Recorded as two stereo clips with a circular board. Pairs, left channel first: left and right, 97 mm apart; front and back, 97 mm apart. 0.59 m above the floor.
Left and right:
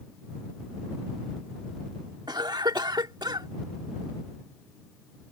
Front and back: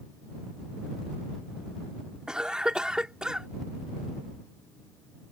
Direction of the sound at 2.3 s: 100° right.